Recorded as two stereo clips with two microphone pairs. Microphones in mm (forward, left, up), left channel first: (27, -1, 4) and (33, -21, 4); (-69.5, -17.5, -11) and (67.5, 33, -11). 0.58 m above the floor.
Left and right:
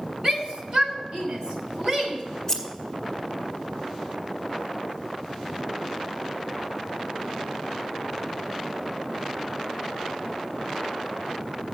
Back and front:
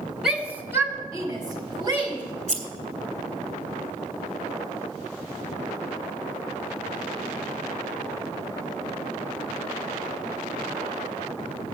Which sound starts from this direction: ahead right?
A shout, at 0.2 s.